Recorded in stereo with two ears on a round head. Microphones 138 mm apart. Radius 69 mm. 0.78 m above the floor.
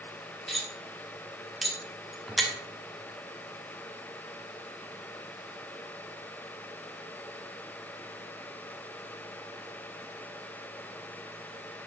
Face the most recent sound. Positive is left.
turn(degrees=0)  # may be behind; listen again after turning